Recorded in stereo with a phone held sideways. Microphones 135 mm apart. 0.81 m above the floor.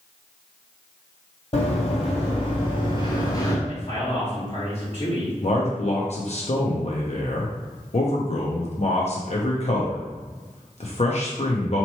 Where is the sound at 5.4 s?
55° left (ahead or behind), 0.7 m.